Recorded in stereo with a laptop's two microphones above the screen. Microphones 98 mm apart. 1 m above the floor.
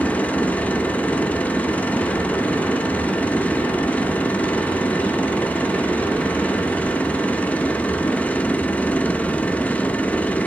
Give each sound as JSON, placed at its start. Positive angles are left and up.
{"t": 0.0, "sound": "a machine running", "side_deg": 15, "distance_m": 0.7}